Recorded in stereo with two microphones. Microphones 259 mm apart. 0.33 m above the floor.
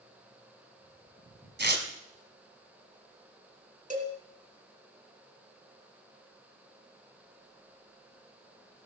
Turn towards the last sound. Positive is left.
turn(degrees=-30)  # may be behind; listen again after turning